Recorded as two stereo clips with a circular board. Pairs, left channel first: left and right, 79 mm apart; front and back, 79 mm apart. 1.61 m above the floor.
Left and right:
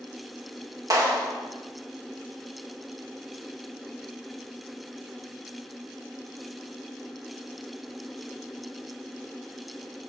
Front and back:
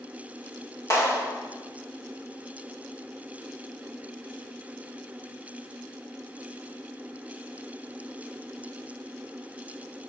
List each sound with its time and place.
0.9 s a clap: 45° right, 1.8 m